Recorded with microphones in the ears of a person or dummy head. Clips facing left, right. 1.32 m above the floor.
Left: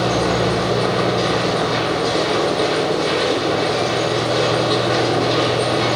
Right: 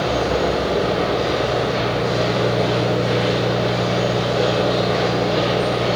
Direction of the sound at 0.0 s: 70° left (ahead or behind).